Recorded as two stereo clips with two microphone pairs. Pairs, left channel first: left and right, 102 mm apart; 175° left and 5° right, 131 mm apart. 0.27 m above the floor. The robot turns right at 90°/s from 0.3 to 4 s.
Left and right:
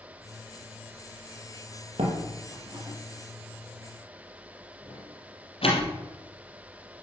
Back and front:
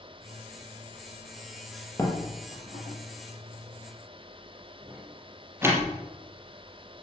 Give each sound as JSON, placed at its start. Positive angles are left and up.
{"t": 2.0, "sound": "a door slam", "azimuth_deg": -115, "distance_m": 5.0}